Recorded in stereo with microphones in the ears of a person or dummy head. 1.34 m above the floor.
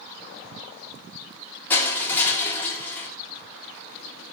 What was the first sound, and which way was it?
Crushing, 15° left (ahead or behind).